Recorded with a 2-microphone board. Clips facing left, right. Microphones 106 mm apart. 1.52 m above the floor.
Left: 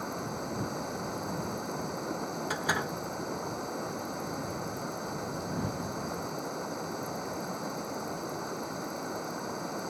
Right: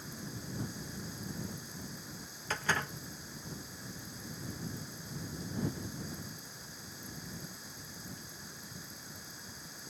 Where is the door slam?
10° left (ahead or behind).